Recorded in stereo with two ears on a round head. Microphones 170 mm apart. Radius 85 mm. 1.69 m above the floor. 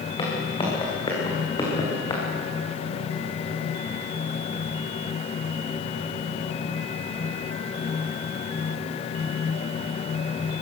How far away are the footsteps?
About 8 m.